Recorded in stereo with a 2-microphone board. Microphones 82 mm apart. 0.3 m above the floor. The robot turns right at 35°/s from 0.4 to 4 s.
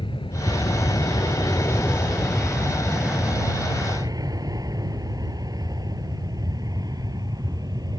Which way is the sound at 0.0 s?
75° left (ahead or behind).